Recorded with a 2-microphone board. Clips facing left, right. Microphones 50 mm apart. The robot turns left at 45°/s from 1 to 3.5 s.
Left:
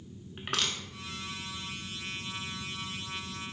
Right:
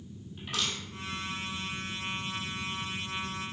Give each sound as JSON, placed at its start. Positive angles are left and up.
{"t": 0.4, "sound": "crushing", "side_deg": 65, "distance_m": 0.6}